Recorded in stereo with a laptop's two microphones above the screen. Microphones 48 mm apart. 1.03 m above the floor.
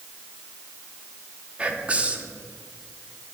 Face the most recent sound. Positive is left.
turn(degrees=-25)  # may be behind; listen again after turning